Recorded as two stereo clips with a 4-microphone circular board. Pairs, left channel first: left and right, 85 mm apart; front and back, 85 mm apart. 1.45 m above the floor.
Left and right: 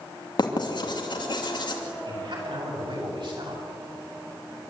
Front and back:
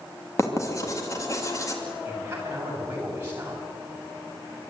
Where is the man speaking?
110° right, 7.5 m.